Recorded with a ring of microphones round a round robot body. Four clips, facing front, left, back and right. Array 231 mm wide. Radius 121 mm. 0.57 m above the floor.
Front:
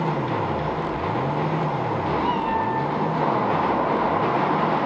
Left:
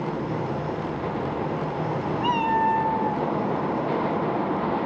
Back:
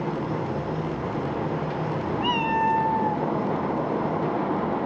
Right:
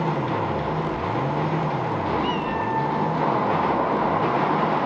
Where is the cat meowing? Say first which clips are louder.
Left 3 dB, back 3 dB; 170° left, 2.5 m; by 3.2 s 165° right, 2.5 m.